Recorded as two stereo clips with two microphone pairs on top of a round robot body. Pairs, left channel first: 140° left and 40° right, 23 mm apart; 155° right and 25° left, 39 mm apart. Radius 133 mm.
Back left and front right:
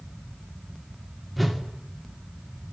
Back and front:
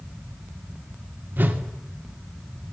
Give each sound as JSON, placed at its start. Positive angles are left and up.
{"t": 1.4, "sound": "a whoosh", "azimuth_deg": 45, "distance_m": 2.0}